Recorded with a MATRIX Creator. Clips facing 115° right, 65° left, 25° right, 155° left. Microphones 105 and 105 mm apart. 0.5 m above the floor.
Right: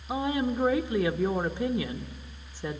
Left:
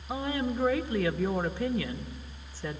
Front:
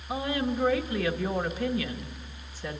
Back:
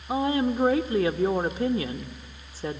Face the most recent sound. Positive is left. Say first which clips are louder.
# right 3 dB, back 5 dB
turn(degrees=-175)